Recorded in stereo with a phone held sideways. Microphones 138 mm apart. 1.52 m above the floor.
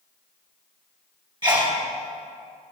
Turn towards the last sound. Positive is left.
turn(degrees=-35)  # may be behind; listen again after turning